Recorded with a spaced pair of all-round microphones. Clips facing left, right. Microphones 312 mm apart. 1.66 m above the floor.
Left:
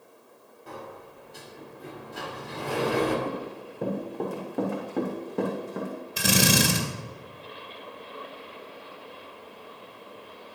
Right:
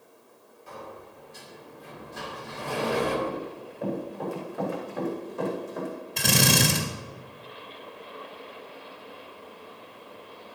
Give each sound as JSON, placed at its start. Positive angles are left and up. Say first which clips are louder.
{"t": 0.7, "sound": "a sliding door", "louder": "left 1 dB", "side_deg": 65, "distance_m": 2.5}
{"t": 3.2, "sound": "running footsteps", "louder": "even", "side_deg": 55, "distance_m": 4.5}
{"t": 6.2, "sound": "a drill", "louder": "left 1 dB", "side_deg": 5, "distance_m": 2.0}